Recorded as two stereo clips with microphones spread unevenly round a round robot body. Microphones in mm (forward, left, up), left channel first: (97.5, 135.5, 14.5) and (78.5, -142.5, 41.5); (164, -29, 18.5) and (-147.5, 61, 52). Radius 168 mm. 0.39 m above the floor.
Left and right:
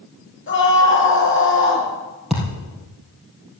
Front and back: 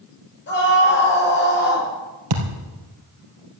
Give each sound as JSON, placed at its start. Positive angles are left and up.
{"t": 0.5, "sound": "a scream", "azimuth_deg": 40, "distance_m": 7.5}
{"t": 2.3, "sound": "a thud", "azimuth_deg": 175, "distance_m": 3.0}